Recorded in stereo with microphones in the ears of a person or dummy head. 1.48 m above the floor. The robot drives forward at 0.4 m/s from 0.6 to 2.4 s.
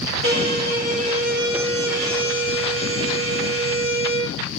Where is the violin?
85° right, 3 m; by 4.4 s 70° right (ahead or behind), 3.5 m.